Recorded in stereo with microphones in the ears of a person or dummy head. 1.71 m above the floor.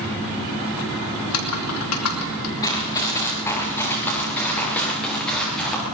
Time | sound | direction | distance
1.2 | typing on a keyboard | 80° left | 3.5 m
2.6 | running footsteps | 15° left (ahead or behind) | 9 m